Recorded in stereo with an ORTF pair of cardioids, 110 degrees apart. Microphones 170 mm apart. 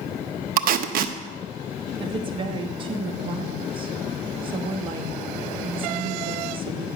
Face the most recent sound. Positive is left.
turn(degrees=-30)